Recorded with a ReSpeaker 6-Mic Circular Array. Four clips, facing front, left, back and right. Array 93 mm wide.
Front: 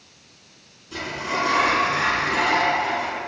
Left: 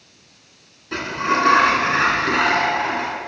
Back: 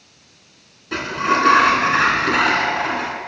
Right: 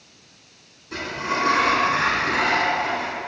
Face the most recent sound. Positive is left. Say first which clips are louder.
# left 5 dB, back 8 dB
turn(degrees=150)